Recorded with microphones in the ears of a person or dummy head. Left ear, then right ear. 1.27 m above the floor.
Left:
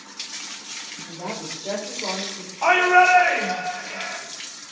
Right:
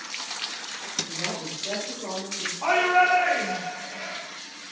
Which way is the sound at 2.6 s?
80° left.